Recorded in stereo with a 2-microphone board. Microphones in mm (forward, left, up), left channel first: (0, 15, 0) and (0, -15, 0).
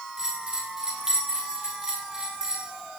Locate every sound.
0.2 s a bell: 20° right (ahead or behind), 6 m